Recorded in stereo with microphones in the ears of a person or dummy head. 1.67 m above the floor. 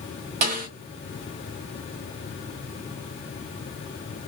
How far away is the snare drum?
About 1.3 m.